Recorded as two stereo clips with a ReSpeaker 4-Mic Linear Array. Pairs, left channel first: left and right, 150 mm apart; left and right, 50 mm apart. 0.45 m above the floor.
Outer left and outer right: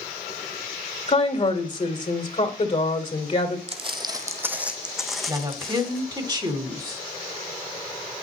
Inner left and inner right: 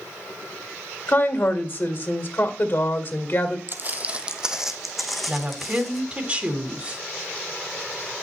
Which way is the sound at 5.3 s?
30° right (ahead or behind).